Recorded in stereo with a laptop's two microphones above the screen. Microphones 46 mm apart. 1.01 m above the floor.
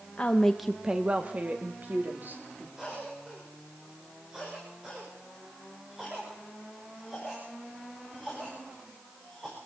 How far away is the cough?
About 5 m.